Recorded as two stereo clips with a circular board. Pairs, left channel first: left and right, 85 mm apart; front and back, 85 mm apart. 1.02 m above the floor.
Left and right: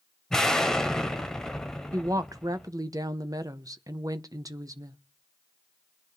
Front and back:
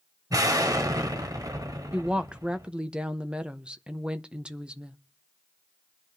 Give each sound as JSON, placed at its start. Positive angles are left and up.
{"t": 0.3, "sound": "an explosion", "azimuth_deg": 170, "distance_m": 1.0}
{"t": 1.9, "sound": "a woman speaking", "azimuth_deg": -105, "distance_m": 0.7}